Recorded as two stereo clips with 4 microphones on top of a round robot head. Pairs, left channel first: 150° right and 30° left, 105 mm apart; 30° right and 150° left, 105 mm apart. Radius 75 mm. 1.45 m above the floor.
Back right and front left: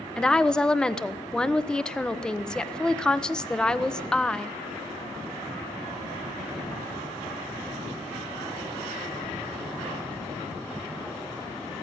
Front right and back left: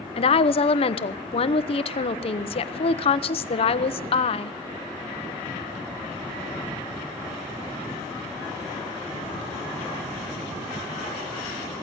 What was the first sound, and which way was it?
A woman speaking, 65° right.